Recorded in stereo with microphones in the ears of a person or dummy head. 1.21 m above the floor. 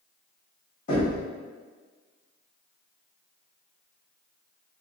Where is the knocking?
35° left (ahead or behind), 1.8 m.